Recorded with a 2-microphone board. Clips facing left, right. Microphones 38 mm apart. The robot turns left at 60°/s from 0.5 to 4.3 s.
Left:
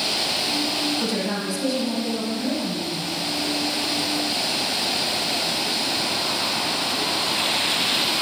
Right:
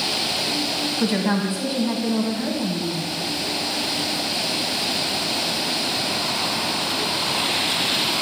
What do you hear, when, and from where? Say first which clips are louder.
1.0 s a woman speaking: right 4 dB; 60° right, 1.5 m; by 3.1 s 170° left, 1.5 m